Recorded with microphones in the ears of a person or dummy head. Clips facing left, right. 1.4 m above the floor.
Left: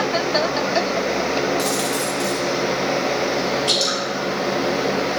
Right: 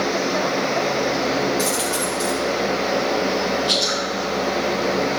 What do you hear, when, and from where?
1.6 s a dropped coin: 5° left (ahead or behind), 1.7 m
3.7 s dripping: 70° left (ahead or behind), 4 m